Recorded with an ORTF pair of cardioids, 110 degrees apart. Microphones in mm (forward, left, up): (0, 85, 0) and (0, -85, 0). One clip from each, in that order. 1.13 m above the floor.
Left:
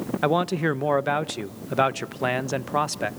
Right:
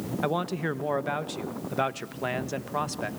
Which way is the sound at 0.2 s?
30° left.